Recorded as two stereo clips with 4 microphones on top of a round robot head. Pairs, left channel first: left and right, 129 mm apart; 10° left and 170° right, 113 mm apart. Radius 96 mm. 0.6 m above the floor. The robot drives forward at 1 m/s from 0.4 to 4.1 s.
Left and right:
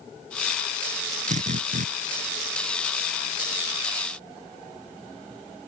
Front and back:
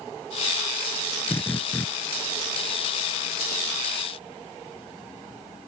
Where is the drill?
65° right; by 1.9 s 70° right.